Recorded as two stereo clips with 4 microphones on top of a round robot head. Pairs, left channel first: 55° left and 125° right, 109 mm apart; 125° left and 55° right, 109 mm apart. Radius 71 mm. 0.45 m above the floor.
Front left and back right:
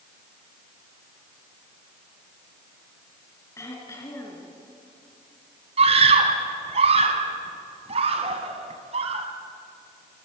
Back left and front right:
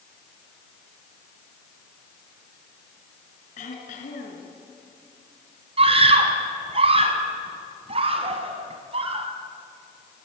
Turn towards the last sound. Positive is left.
turn(degrees=-90)